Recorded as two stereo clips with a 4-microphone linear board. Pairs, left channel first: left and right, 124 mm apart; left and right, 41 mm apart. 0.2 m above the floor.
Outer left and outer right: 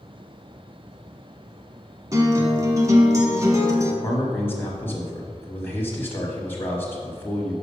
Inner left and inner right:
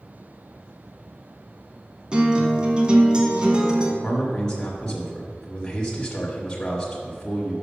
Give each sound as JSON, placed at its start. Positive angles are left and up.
{"t": 2.1, "sound": "a guitar", "side_deg": -25, "distance_m": 1.0}
{"t": 4.0, "sound": "a man speaking", "side_deg": 15, "distance_m": 1.2}